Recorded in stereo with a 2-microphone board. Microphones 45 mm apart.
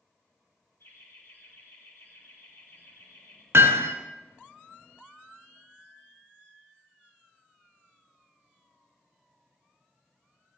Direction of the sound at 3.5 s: 75° right (ahead or behind).